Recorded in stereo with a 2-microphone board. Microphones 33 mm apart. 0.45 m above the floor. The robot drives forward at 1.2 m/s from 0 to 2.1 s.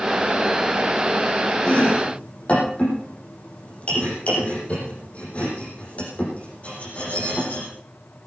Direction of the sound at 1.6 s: 45° left (ahead or behind).